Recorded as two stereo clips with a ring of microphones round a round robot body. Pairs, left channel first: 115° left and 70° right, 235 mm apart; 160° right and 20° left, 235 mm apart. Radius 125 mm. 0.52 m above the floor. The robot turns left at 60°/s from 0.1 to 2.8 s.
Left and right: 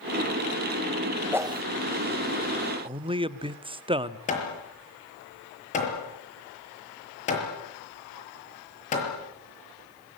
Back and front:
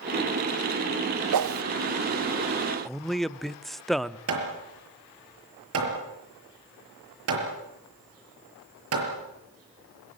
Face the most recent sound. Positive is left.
turn(degrees=50)